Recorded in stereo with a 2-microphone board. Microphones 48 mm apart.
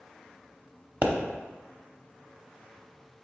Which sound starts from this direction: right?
A pop, at 1.0 s.